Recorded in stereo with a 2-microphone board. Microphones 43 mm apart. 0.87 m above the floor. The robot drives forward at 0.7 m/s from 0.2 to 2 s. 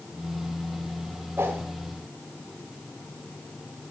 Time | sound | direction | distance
1.4 | a whoosh | 70° right (ahead or behind) | 2 m